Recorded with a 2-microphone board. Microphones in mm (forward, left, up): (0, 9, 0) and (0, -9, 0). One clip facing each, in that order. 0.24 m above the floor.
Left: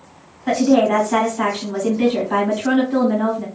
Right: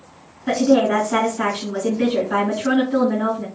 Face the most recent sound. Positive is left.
turn(degrees=25)  # may be behind; listen again after turning